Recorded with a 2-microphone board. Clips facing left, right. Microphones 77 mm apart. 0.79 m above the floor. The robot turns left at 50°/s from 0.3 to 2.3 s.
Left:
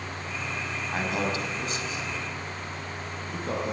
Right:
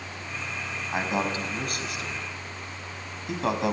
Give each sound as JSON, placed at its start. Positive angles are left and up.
{"t": 0.9, "sound": "a man speaking", "side_deg": -15, "distance_m": 5.0}